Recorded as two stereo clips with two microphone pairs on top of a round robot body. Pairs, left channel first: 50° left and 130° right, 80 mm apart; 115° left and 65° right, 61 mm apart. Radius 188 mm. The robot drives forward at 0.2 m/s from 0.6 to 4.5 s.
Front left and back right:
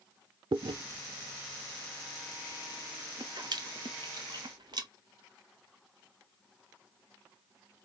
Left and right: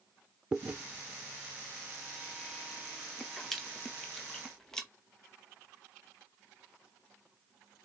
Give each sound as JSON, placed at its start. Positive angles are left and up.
{"t": 0.5, "sound": "chewing", "azimuth_deg": -130, "distance_m": 0.6}